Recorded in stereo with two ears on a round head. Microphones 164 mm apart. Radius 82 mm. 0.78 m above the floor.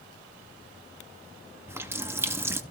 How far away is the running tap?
About 0.6 m.